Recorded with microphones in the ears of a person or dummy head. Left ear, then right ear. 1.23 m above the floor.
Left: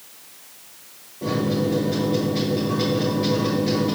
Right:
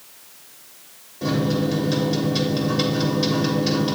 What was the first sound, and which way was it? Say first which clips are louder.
A microwave: even; 45° right (ahead or behind).